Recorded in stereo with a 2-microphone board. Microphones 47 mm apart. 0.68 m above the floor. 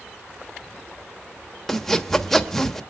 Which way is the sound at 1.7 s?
5° left (ahead or behind).